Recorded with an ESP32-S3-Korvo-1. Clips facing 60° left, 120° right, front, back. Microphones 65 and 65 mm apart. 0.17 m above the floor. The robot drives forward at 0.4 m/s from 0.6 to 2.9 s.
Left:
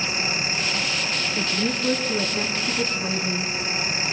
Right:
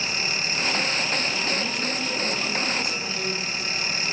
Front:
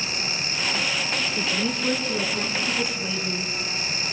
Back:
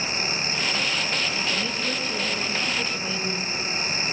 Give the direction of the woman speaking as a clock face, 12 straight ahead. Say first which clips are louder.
Left 2 dB, front 2 dB; 10 o'clock.